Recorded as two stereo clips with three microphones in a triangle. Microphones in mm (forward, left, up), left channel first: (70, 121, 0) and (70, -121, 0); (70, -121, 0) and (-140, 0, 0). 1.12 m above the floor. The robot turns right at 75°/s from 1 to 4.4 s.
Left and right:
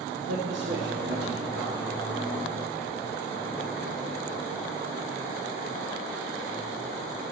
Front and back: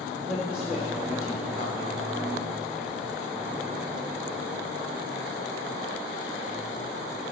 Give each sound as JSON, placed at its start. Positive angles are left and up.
{"t": 0.1, "sound": "a man speaking", "azimuth_deg": -125, "distance_m": 1.1}